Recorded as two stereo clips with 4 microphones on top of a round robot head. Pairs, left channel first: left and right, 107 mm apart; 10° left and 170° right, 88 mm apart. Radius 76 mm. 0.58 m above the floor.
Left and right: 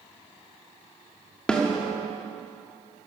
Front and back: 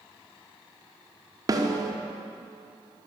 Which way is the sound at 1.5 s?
170° left.